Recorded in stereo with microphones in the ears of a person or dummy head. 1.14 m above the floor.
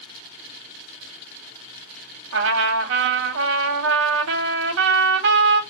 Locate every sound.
2.3 s a trumpet: 70° right (ahead or behind), 1.0 m